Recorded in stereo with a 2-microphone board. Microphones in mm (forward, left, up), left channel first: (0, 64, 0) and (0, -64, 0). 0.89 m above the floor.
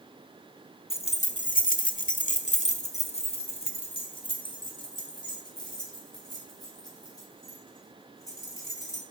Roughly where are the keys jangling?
Left.